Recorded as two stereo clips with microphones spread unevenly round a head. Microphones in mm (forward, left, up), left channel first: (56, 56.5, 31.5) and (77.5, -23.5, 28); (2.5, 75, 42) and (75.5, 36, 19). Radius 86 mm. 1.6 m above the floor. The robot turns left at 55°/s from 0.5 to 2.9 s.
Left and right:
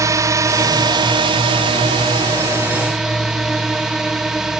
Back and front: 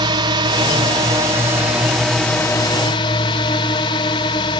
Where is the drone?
30° right; by 4.6 s 160° right.